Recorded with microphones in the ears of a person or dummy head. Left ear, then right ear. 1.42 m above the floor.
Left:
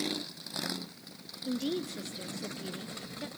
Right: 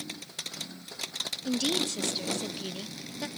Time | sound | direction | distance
1.4 | a woman speaking | 35° right (ahead or behind) | 0.7 m